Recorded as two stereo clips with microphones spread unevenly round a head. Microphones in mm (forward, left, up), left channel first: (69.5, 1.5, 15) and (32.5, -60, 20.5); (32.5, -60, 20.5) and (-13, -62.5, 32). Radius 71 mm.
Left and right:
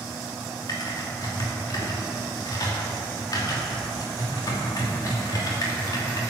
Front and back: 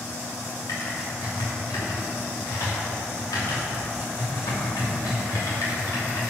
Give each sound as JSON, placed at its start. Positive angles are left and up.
{"t": 0.7, "sound": "typing on a keyboard", "azimuth_deg": 30, "distance_m": 2.5}